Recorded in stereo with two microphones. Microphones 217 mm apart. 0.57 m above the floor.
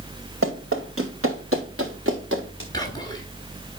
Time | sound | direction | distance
0.4 | running footsteps | 80° right | 4 m
2.7 | whispering | 20° left (ahead or behind) | 3 m